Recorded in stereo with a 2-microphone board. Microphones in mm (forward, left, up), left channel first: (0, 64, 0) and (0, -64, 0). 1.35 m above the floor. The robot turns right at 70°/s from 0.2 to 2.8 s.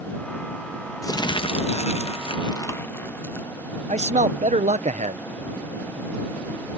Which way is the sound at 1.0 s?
30° left.